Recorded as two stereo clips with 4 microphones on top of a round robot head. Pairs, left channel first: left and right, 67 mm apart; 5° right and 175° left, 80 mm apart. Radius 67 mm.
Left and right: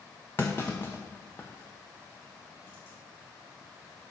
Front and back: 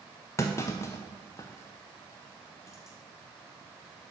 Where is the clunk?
25° left, 0.7 m.